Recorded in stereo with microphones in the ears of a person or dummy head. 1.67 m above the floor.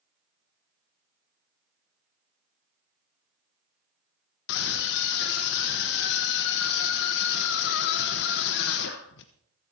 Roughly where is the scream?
Left.